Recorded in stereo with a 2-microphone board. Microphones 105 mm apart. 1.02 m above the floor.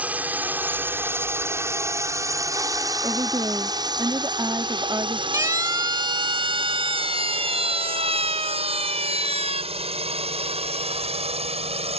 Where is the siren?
30° right (ahead or behind); by 9.6 s 75° right (ahead or behind).